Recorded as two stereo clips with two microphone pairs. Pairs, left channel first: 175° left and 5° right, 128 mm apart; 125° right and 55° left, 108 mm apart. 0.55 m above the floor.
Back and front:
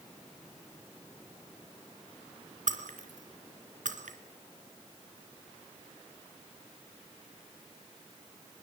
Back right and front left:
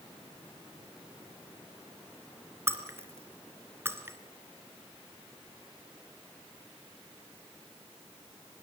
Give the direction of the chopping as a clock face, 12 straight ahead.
I don't hear chopping.